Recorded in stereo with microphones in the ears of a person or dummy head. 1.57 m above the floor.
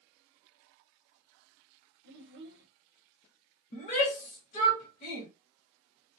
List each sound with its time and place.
2.0 s a child speaking: 60° right (ahead or behind), 0.7 m
3.7 s a shout: 35° left (ahead or behind), 0.8 m